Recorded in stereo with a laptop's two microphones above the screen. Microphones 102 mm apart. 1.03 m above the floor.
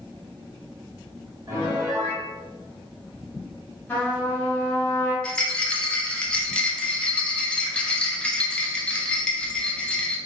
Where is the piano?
30° right (ahead or behind), 1.0 m.